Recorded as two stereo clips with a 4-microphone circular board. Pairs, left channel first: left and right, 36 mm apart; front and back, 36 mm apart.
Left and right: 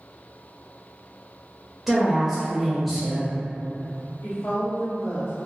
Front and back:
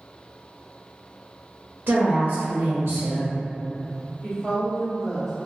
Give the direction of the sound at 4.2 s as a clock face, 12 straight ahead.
9 o'clock.